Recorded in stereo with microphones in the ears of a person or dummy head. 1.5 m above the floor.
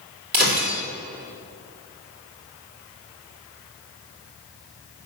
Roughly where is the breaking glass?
Right.